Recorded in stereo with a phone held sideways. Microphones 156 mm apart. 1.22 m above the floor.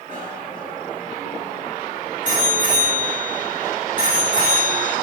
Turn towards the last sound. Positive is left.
turn(degrees=-55)  # may be behind; listen again after turning